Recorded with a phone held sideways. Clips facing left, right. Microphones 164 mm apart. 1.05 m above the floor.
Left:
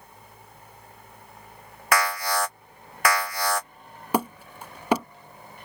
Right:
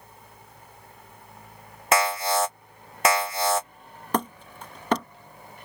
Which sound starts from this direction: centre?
Hammering, at 4.1 s.